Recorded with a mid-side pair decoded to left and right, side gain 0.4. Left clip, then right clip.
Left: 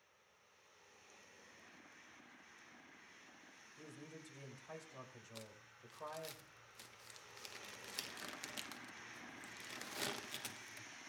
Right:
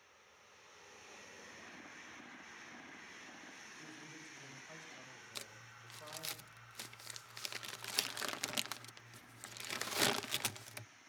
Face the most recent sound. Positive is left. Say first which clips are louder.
# right 7 dB
turn(degrees=-65)